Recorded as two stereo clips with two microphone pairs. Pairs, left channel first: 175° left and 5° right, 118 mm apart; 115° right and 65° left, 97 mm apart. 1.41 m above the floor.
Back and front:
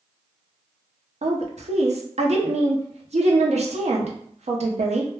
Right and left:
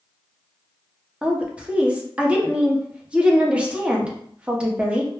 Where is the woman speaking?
15° right, 0.6 m.